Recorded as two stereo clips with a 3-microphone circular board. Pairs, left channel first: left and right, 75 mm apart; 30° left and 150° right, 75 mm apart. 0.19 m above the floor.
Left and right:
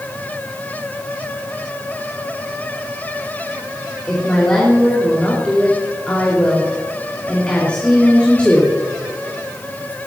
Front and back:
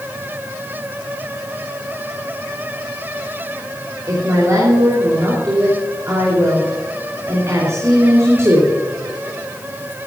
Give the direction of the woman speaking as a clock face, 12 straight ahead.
7 o'clock.